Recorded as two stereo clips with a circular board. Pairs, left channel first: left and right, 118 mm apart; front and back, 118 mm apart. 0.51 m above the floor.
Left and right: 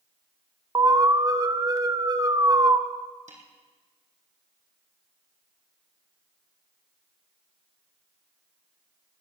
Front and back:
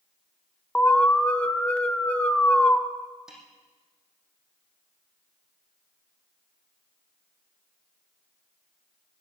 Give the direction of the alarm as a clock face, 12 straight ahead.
2 o'clock.